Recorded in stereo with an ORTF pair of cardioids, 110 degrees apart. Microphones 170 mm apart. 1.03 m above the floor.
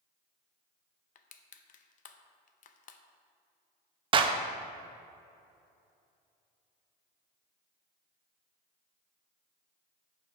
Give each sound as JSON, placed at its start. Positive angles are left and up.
{"t": 1.1, "sound": "crushing", "azimuth_deg": 45, "distance_m": 0.6}
{"t": 4.1, "sound": "a clap", "azimuth_deg": -30, "distance_m": 0.5}